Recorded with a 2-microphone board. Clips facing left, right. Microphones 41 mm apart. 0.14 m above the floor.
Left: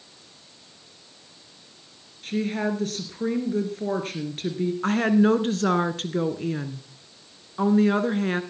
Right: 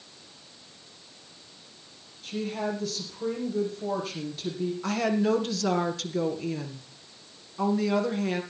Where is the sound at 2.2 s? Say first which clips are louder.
Left 5 dB; 50° left (ahead or behind), 3 m.